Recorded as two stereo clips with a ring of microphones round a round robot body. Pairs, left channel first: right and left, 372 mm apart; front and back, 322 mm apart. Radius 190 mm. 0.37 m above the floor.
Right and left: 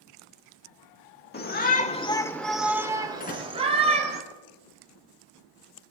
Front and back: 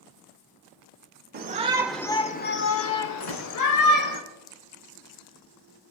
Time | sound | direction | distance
1.3 | a shout | 140° right | 1.0 m
3.2 | a door slam | 20° right | 3 m